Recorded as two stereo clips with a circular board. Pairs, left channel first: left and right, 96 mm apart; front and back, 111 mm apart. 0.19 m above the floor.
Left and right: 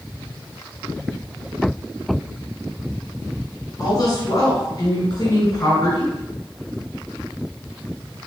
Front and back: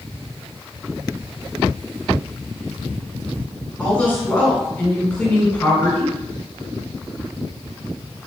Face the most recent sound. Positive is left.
turn(degrees=75)